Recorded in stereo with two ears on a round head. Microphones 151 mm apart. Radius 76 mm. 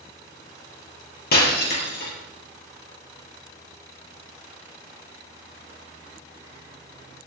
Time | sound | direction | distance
1.3 | breaking glass | 60° left (ahead or behind) | 3.5 m